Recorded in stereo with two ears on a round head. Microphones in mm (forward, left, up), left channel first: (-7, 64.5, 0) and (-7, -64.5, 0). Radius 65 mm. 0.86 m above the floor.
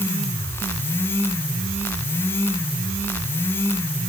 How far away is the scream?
No scream in this recording.